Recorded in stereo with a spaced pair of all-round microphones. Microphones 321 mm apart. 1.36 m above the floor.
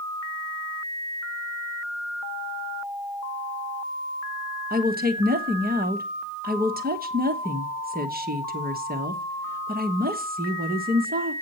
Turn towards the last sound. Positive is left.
turn(degrees=-30)  # may be behind; listen again after turning